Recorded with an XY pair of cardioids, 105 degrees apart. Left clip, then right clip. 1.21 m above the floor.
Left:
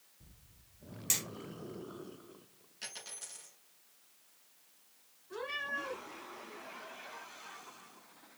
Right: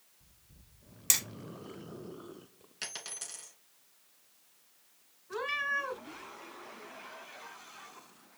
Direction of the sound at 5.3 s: 70° right.